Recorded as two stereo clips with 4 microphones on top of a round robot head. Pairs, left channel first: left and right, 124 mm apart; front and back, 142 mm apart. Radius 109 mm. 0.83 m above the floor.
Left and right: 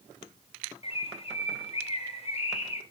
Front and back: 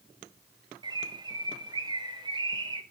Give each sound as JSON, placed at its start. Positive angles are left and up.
{"t": 0.8, "sound": "a bird", "azimuth_deg": 120, "distance_m": 2.5}